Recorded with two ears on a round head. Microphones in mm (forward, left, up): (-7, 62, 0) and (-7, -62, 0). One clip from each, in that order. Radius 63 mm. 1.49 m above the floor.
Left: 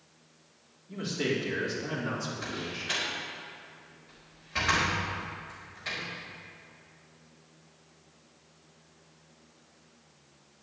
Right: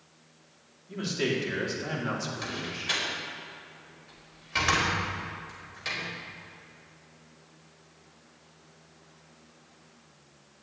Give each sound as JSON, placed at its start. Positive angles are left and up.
{"t": 0.9, "sound": "a man speaking", "side_deg": -50, "distance_m": 4.0}
{"t": 2.4, "sound": "a door slam", "side_deg": -85, "distance_m": 5.0}